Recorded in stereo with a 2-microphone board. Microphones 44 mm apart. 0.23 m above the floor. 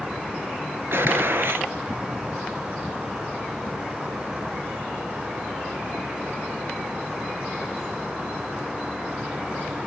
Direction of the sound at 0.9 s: 60° right (ahead or behind).